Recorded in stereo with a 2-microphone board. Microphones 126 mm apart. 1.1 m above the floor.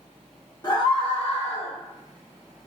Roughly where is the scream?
Left.